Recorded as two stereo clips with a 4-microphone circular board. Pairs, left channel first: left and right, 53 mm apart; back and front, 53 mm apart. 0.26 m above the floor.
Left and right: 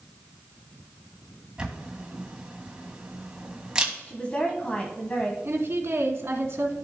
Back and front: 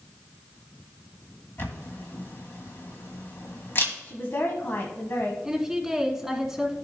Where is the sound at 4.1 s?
145° left, 1.4 m.